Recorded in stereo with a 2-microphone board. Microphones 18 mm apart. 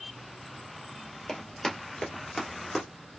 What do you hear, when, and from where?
1.3 s running footsteps: 30° left (ahead or behind), 1.4 m; by 2.9 s 5° left (ahead or behind), 1.1 m